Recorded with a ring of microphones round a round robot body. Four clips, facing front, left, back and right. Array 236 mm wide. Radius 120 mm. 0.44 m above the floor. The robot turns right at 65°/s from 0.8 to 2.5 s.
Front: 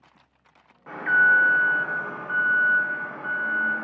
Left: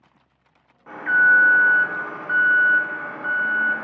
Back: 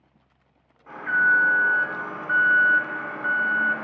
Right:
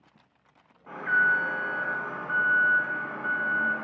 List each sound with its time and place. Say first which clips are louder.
0.9 s an alarm: left 7 dB, front 2 dB; 30° left, 0.6 m; by 3.8 s 135° left, 0.6 m